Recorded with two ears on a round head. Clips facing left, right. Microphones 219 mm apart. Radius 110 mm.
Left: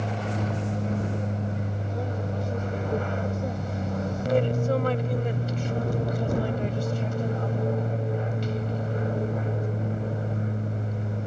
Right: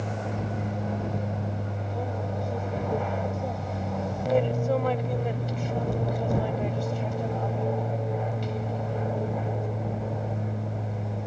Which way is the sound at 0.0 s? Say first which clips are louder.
Left 2 dB; 15° left (ahead or behind).